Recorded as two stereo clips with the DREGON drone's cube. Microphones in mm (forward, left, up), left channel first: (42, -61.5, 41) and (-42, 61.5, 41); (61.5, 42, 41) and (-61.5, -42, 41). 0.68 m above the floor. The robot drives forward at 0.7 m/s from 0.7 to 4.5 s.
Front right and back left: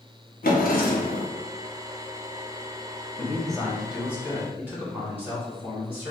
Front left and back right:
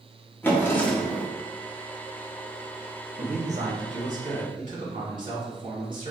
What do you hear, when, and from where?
0.4 s a drawer: 40° right, 0.7 m; by 1.3 s 75° right, 0.5 m
3.2 s a man speaking: 130° right, 0.9 m; by 6.1 s 160° right, 1.6 m